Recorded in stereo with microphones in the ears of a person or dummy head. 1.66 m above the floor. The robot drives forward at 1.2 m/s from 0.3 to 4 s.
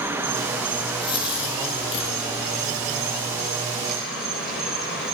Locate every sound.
0.0 s an insect: 10° right (ahead or behind), 1.0 m; by 5.2 s centre (ahead or behind), 5 m
1.0 s a dropped coin: 25° left (ahead or behind), 5.5 m; by 2.1 s 35° left (ahead or behind), 4.5 m